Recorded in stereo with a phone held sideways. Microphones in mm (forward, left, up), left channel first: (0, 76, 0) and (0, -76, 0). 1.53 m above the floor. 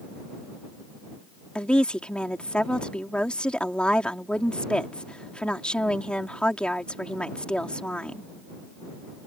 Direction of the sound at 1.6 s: 5° left (ahead or behind).